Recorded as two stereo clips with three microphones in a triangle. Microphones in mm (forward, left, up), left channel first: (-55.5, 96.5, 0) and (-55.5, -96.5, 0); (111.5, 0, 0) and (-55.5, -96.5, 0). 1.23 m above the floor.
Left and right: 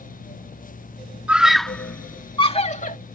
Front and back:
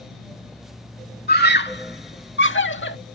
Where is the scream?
5° right; by 3.0 s 45° left.